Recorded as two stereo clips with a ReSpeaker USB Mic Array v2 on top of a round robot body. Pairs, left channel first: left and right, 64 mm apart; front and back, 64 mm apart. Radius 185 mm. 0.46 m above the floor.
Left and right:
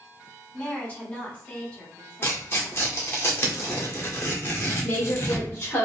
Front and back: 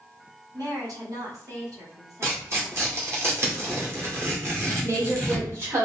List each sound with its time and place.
0.5 s a woman speaking: 160° left, 1.9 m
2.2 s tearing paper: 140° left, 1.9 m
4.8 s a woman speaking: 135° left, 2 m